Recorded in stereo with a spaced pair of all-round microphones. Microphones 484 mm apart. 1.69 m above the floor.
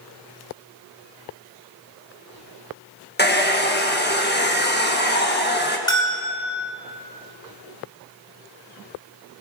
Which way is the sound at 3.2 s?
20° left (ahead or behind).